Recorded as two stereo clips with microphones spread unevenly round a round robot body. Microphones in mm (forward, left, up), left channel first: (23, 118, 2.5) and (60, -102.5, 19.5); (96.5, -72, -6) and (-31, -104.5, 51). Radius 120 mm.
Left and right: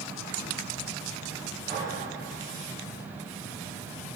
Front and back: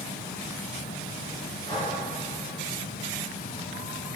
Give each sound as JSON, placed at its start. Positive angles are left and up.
{"t": 1.6, "sound": "breathing", "azimuth_deg": -35, "distance_m": 5.5}